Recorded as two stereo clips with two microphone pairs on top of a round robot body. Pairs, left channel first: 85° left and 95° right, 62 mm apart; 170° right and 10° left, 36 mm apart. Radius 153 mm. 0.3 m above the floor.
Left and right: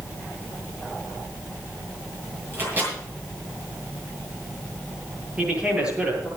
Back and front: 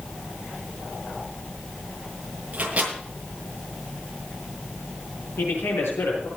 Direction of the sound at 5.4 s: 170° right.